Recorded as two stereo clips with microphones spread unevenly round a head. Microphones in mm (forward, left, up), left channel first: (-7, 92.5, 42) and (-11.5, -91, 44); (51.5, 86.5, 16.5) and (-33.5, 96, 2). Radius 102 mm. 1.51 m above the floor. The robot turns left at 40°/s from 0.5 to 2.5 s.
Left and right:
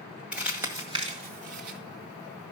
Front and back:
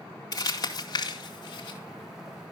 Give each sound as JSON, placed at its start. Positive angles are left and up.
{"t": 0.3, "sound": "crumpling", "azimuth_deg": -10, "distance_m": 1.9}